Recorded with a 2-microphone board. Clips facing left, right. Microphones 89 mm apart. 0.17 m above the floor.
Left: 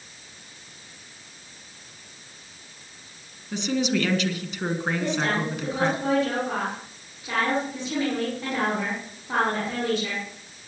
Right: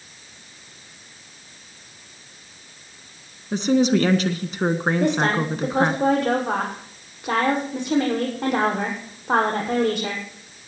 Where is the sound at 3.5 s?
45° right (ahead or behind), 1.6 m.